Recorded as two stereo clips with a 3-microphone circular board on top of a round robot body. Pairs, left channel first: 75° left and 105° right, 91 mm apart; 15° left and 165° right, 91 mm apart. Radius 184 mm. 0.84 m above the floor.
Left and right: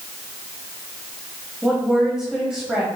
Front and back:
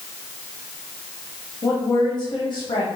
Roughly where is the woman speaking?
Ahead.